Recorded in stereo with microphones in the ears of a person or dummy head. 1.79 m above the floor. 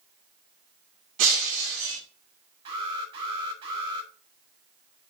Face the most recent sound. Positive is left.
turn(degrees=-30)  # may be behind; listen again after turning